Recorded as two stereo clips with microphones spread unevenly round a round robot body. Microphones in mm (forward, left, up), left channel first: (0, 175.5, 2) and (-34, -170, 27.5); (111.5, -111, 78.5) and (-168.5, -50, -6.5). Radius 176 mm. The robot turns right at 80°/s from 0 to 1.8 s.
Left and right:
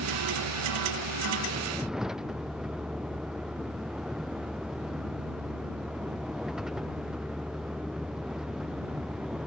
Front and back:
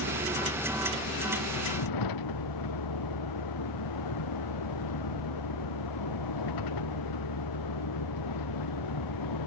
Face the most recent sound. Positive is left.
turn(degrees=-5)